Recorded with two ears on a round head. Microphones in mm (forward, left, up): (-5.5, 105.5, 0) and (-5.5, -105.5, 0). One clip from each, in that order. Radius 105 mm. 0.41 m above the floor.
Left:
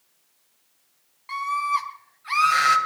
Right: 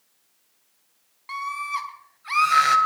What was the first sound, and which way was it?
A scream, 5° right (ahead or behind).